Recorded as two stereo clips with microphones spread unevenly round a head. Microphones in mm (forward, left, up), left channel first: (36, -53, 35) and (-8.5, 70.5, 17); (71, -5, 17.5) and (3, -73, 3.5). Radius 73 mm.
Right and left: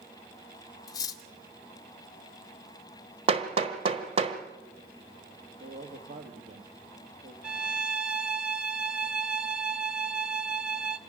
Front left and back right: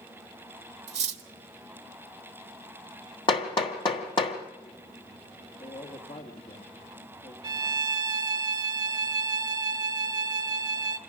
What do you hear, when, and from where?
0.9 s cutlery clinking: 135° right, 0.8 m
3.3 s hammering: 60° left, 1.4 m
5.6 s a man speaking: 75° left, 1.6 m
7.4 s a violin: 155° right, 0.6 m